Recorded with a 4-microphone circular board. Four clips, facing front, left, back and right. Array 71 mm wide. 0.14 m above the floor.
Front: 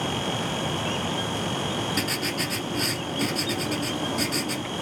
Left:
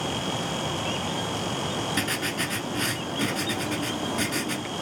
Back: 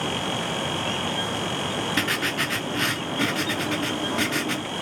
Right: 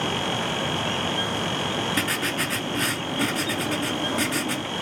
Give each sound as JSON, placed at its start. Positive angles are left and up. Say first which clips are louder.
{"t": 2.0, "sound": "writing", "louder": "right 3 dB, back 3 dB", "azimuth_deg": -160, "distance_m": 1.0}